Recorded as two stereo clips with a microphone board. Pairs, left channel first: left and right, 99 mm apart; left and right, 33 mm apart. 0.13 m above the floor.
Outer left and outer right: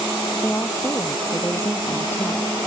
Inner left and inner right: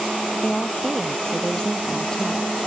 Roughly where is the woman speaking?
Left.